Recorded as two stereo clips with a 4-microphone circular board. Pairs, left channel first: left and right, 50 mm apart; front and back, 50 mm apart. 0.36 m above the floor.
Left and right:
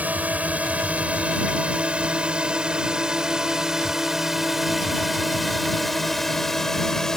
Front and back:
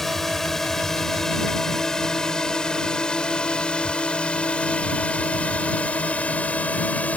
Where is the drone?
85° right; by 7.2 s 20° left.